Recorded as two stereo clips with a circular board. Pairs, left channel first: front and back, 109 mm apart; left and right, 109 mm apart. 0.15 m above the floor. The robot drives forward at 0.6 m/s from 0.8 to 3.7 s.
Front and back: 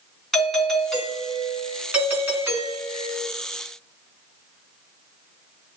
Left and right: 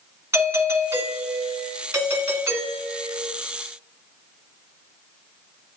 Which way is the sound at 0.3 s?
85° right.